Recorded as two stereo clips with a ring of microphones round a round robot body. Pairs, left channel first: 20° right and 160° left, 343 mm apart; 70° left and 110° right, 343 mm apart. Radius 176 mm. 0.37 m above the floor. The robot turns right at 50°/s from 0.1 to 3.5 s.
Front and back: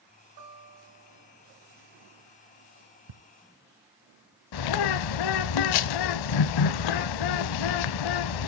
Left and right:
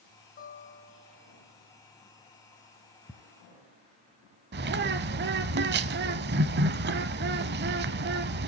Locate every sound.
0.4 s a guitar: 135° left, 4 m; by 1.4 s 175° right, 4 m
3.1 s ticking: 160° left, 0.7 m
4.5 s a bird: 50° right, 0.5 m